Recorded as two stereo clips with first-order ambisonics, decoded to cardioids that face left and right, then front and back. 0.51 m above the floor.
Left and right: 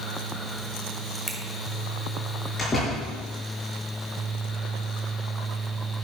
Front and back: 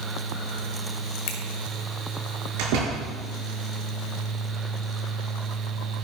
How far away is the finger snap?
About 1.4 m.